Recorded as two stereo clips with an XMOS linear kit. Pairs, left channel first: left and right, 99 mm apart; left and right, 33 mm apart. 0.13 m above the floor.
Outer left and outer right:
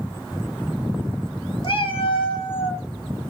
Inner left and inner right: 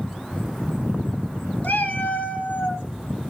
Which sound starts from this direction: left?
A cat meowing, at 1.6 s.